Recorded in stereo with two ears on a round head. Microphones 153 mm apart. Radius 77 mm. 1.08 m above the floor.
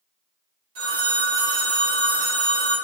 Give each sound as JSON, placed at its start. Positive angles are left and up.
{"t": 0.8, "sound": "a phone ringing", "side_deg": -80, "distance_m": 1.4}